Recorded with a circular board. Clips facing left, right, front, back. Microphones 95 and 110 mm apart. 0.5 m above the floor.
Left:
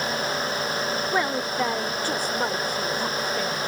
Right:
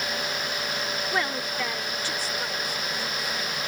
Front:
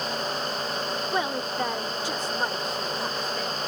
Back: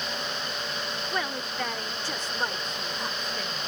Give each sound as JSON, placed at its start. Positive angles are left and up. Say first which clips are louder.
{"t": 1.1, "sound": "a woman speaking", "louder": "left 3 dB, front 4 dB", "azimuth_deg": 35}